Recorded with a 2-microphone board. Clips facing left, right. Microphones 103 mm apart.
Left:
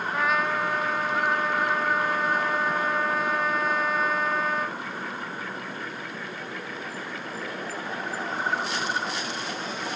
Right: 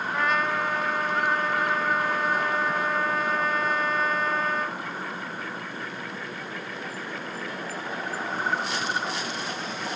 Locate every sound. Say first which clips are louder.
0.1 s a trumpet: even; 5° left (ahead or behind)